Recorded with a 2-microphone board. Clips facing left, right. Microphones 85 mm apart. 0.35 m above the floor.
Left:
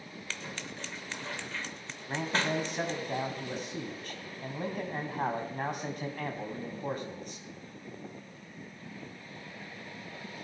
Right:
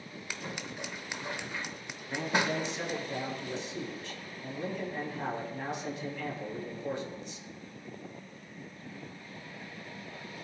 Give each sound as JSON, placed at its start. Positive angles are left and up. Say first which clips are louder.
{"t": 0.3, "sound": "scissors", "louder": "right 2 dB", "side_deg": -15, "distance_m": 0.7}
{"t": 2.1, "sound": "a man speaking", "louder": "right 1 dB", "side_deg": 50, "distance_m": 3.0}